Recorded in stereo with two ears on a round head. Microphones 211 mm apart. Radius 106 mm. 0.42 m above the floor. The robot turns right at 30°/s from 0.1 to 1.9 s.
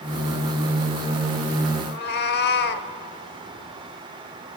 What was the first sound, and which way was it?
A cat meowing, 45° left (ahead or behind).